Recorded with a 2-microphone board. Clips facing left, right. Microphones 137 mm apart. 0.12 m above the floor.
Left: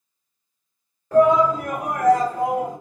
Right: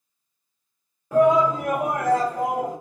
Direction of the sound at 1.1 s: 10° right (ahead or behind).